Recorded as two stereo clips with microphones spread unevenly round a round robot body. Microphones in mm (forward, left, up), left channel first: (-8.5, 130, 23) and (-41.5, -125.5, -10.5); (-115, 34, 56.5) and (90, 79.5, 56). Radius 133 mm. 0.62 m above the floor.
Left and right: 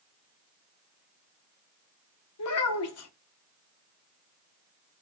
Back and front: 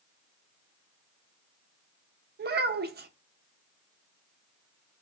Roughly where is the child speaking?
Ahead left.